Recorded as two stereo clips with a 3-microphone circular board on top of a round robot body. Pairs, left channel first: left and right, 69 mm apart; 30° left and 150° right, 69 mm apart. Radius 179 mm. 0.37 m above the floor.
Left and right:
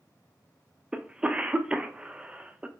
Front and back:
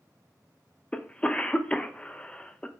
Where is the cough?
30° right, 1.1 m.